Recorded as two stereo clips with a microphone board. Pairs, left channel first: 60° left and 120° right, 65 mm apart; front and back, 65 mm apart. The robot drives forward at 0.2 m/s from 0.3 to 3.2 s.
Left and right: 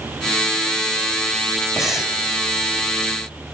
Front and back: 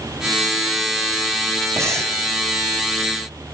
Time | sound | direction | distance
1.8 | breathing | 160° left | 2.0 m